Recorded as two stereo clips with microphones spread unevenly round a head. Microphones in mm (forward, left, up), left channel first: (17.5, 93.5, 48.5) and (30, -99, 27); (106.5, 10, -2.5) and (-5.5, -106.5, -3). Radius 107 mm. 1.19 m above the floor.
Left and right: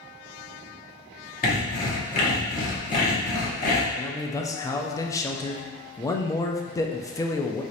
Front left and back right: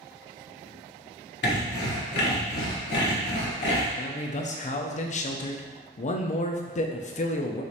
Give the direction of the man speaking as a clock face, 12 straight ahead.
11 o'clock.